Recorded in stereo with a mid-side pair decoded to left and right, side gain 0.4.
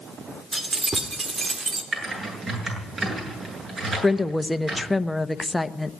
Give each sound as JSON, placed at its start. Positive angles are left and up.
{"t": 0.5, "sound": "keys jangling", "azimuth_deg": -35, "distance_m": 2.5}
{"t": 1.9, "sound": "typing on a keyboard", "azimuth_deg": -50, "distance_m": 8.0}
{"t": 4.0, "sound": "a woman speaking", "azimuth_deg": 10, "distance_m": 0.8}